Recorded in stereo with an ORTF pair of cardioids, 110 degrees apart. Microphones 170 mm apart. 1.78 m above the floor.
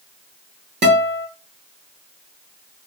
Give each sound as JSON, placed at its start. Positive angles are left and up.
{"t": 0.8, "sound": "a guitar", "azimuth_deg": -40, "distance_m": 2.0}